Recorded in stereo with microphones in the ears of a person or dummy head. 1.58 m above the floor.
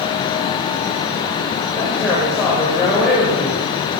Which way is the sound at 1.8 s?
5° left (ahead or behind).